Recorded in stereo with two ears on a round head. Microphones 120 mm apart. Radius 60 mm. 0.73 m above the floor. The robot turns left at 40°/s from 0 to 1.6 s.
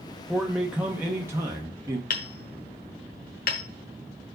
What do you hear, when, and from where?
0.3 s a man speaking: centre (ahead or behind), 0.7 m; by 2.0 s 20° right (ahead or behind), 0.7 m
2.1 s hammering: 70° left (ahead or behind), 1.2 m